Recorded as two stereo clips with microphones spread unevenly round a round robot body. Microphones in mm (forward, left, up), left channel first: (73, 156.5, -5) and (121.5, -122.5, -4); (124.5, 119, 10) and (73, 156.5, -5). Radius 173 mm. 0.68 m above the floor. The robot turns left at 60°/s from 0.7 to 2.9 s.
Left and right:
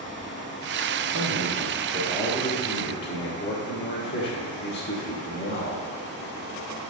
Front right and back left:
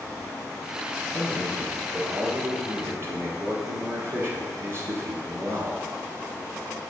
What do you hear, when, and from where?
1.1 s a man speaking: 105° right, 1.1 m; by 5.9 s 150° left, 1.1 m